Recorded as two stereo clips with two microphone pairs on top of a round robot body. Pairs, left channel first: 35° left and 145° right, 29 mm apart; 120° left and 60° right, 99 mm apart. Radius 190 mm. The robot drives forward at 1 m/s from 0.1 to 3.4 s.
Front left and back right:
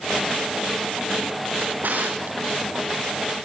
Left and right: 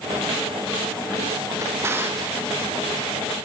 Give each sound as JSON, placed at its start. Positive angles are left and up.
{"t": 1.6, "sound": "a drawer", "azimuth_deg": -125, "distance_m": 2.5}